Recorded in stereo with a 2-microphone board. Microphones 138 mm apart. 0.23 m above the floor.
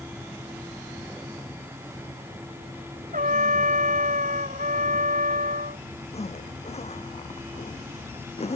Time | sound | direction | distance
3.1 | a trumpet | 70° right (ahead or behind) | ?
6.1 | a zipper | 50° left (ahead or behind) | ?